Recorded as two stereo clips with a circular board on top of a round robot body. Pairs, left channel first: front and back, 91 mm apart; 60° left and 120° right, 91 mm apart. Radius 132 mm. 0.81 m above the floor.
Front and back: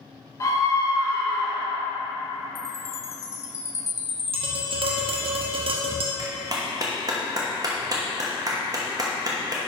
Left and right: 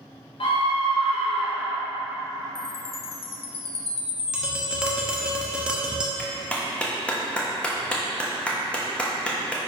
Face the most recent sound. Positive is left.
turn(degrees=135)